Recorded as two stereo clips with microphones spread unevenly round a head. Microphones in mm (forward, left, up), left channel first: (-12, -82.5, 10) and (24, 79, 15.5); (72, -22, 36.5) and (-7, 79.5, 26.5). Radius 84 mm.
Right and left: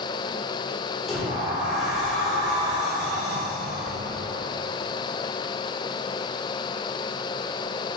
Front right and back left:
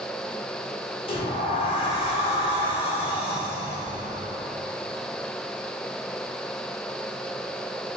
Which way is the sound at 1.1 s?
10° right.